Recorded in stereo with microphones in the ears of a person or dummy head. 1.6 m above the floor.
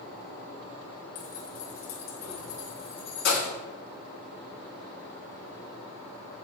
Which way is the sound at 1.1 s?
50° left (ahead or behind).